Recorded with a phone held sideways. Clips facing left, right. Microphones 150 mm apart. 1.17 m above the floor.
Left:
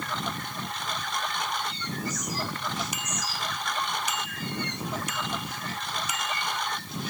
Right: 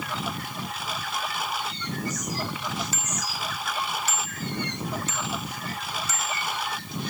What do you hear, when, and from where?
0.0 s a lawn mower: 5° right (ahead or behind)
2.9 s a bicycle bell: 15° left (ahead or behind)